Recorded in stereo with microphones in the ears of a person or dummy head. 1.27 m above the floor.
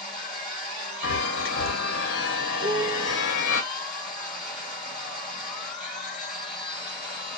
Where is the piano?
45° right (ahead or behind), 1.3 m.